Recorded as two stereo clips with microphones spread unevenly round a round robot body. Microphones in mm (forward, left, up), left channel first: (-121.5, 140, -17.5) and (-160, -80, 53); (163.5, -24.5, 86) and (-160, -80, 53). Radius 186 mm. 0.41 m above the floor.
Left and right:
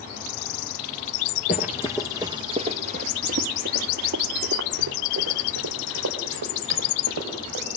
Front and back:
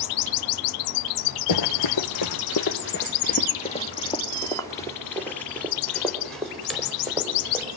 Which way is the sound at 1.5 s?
10° left.